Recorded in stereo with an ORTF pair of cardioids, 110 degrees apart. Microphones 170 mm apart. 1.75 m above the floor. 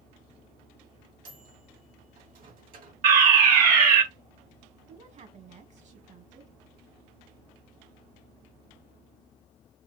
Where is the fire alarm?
60° right, 1.5 m.